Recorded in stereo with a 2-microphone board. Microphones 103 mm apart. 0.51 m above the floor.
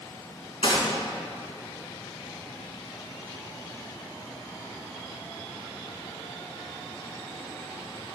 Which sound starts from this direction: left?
A gunshot, at 0.6 s.